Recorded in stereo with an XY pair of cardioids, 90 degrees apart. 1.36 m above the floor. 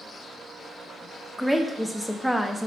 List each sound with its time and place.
1.4 s a woman speaking: straight ahead, 0.6 m